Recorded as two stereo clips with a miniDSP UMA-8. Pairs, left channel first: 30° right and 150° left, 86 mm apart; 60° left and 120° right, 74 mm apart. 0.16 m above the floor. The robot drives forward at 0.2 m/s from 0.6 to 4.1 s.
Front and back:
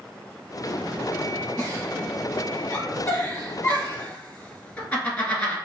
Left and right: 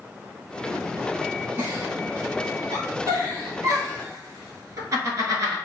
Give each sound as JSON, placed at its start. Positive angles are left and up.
{"t": 1.6, "sound": "a giggle", "azimuth_deg": -75, "distance_m": 1.3}